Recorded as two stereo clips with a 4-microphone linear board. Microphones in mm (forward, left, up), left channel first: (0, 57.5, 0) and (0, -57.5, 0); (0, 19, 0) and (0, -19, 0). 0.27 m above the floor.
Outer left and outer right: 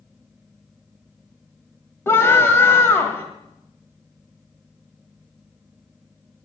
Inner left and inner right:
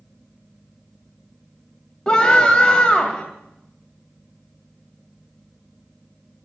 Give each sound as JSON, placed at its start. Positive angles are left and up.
{"t": 2.1, "sound": "a scream", "side_deg": 20, "distance_m": 1.7}